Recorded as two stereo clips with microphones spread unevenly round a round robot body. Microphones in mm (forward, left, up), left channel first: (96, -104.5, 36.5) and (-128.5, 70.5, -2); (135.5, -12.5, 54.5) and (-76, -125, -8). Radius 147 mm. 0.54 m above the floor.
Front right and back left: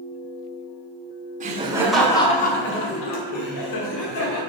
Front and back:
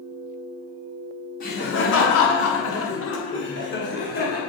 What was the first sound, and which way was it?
Laughter, 90° left.